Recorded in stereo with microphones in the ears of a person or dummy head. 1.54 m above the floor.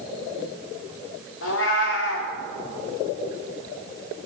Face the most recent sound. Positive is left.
turn(degrees=70)  # may be behind; listen again after turning